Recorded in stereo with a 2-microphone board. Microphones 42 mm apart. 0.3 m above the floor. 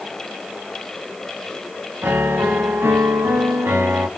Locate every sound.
2.0 s a piano: 75° right (ahead or behind), 0.5 m